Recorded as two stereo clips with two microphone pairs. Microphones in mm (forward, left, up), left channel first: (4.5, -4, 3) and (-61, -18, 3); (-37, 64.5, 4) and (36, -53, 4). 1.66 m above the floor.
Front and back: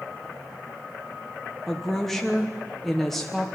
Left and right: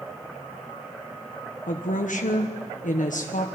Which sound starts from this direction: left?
A woman speaking, at 1.7 s.